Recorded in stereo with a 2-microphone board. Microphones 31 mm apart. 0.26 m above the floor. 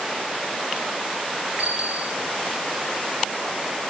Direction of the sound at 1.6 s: 30° right (ahead or behind).